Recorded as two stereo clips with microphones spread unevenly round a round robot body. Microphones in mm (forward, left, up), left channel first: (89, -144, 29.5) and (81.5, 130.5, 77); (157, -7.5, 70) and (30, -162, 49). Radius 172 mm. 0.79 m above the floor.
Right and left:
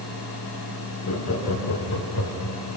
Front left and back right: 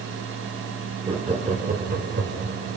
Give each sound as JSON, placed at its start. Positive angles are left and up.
{"t": 1.1, "sound": "laughter", "azimuth_deg": -70, "distance_m": 3.0}